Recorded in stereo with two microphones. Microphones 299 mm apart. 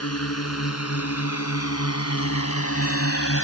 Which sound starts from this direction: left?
A drone, at 0.0 s.